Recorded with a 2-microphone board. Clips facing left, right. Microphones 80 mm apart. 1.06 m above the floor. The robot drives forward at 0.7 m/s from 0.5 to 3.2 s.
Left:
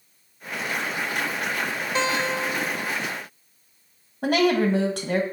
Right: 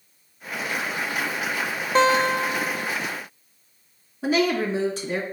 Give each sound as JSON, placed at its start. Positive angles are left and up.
{"t": 1.9, "sound": "a guitar", "side_deg": -35, "distance_m": 0.6}
{"t": 4.2, "sound": "a woman speaking", "side_deg": 55, "distance_m": 1.4}